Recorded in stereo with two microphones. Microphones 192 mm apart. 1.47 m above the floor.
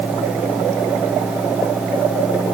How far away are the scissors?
I don't hear scissors.